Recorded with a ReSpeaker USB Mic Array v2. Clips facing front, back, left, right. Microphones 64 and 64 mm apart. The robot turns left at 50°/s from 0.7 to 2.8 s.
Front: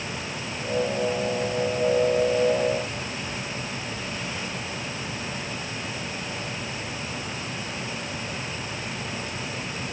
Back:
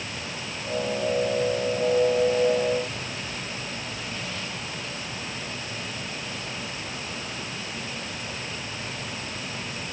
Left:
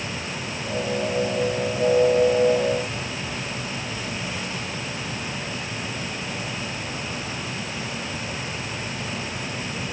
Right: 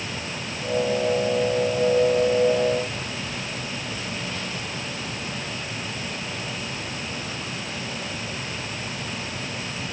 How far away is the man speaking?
No man speaking in this recording.